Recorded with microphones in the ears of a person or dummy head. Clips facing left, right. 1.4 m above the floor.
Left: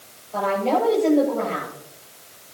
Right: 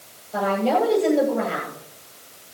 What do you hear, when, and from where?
0.3 s a woman speaking: 10° right (ahead or behind), 10 m